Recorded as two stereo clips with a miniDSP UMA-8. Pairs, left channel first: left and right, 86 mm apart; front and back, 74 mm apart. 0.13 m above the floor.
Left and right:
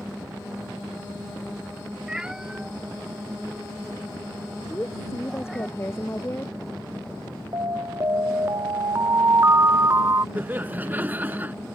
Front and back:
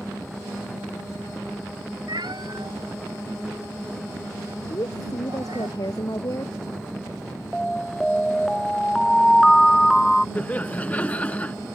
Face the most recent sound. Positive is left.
turn(degrees=-45)